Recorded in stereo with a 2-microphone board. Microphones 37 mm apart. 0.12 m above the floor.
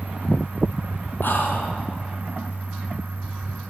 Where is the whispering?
65° left (ahead or behind), 3 m.